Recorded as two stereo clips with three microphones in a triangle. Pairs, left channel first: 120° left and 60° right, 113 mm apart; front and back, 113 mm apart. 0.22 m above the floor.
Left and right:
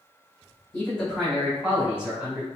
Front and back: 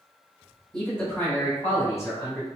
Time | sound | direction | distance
0.7 | a man speaking | 75° left | 1.4 m